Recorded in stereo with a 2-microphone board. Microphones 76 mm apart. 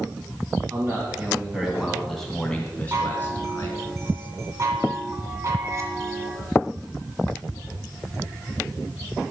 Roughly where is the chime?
Right.